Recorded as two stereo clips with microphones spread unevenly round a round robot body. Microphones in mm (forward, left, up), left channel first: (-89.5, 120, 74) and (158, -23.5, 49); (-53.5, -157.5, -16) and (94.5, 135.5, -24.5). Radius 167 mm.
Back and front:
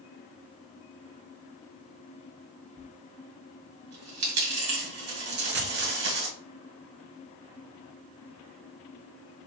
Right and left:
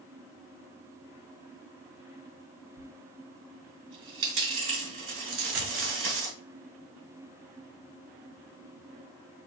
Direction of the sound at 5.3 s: 20° left.